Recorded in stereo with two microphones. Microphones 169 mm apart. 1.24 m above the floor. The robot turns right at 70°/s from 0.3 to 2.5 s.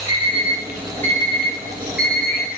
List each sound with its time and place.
0.1 s an alarm clock: 30° right (ahead or behind), 0.8 m; by 2.5 s 50° left (ahead or behind), 0.8 m